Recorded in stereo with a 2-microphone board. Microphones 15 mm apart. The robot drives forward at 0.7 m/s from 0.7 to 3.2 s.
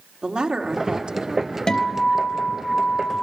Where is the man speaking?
85° right, 3.5 m.